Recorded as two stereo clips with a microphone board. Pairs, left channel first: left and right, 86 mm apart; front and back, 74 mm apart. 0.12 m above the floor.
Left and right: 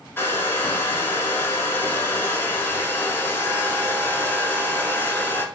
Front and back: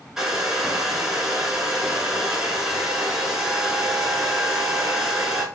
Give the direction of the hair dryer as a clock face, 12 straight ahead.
8 o'clock.